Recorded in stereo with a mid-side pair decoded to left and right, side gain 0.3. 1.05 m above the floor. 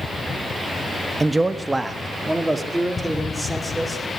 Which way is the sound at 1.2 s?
35° right.